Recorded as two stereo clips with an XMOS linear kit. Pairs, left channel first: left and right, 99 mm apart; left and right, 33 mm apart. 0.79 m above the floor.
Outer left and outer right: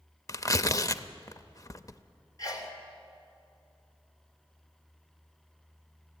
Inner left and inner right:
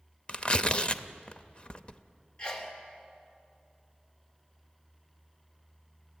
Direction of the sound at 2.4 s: 40° left (ahead or behind).